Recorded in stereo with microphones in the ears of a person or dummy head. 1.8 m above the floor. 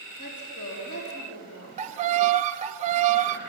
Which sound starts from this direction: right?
A violin, at 1.8 s.